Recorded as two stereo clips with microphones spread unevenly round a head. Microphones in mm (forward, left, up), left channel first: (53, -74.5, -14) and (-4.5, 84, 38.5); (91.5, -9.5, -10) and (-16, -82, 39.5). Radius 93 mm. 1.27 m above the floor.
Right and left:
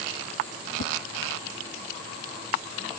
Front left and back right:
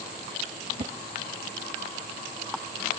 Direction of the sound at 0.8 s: 105° right.